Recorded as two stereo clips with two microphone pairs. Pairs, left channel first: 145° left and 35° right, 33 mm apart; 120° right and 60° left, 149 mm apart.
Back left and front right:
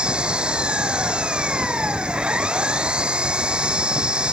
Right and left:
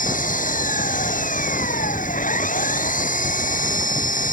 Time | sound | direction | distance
0.0 | an engine running | 95° right | ?